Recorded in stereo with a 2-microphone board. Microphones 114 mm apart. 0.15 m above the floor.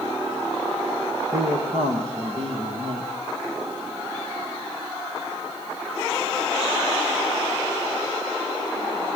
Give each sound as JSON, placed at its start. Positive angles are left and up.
{"t": 1.3, "sound": "a man speaking", "side_deg": -65, "distance_m": 5.0}